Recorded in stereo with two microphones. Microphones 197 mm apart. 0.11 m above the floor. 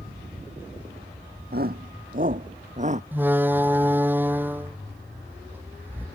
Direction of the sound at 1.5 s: 50° right (ahead or behind).